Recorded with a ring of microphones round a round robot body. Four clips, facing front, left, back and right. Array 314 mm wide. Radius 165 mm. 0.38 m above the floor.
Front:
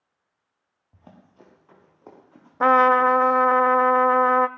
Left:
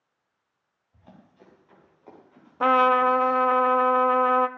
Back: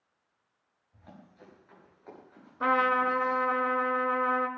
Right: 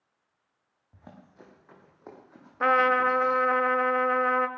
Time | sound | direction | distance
0.9 | running footsteps | 45° right | 5 m
2.6 | a trumpet | 20° left | 0.6 m